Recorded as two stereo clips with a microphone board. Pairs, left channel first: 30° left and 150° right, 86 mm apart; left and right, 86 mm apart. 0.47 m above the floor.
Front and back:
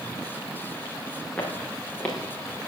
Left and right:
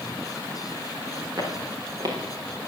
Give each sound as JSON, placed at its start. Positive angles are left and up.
{"t": 1.4, "sound": "footsteps", "azimuth_deg": -50, "distance_m": 4.0}